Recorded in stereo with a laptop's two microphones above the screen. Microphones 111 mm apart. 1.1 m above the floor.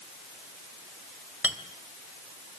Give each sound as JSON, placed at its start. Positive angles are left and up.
{"t": 1.4, "sound": "a clink", "side_deg": -15, "distance_m": 2.5}